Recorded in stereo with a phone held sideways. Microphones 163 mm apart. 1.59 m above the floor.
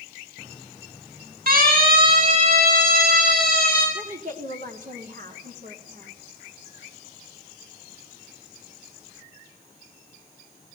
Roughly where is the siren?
Right.